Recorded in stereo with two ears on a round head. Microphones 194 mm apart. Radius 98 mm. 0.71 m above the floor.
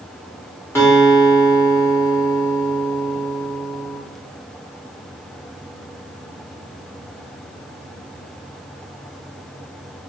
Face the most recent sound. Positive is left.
turn(degrees=10)  # may be behind; listen again after turning